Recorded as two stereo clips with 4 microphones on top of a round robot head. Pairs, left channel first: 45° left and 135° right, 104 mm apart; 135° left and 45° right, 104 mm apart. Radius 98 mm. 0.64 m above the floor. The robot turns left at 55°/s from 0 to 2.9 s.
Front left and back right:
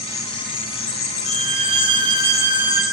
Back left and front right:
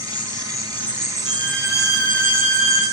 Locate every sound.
0.0 s an insect: 110° left, 3 m; by 2.9 s 50° right, 3 m
1.2 s a violin: 135° right, 4 m; by 2.8 s 135° left, 4 m